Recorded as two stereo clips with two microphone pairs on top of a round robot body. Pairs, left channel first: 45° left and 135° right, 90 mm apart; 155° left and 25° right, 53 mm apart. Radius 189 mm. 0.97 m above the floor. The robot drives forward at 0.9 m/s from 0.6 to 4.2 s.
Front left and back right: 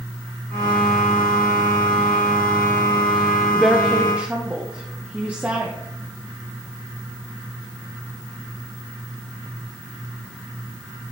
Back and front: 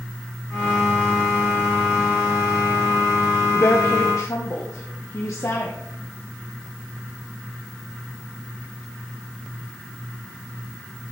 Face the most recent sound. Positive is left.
turn(degrees=155)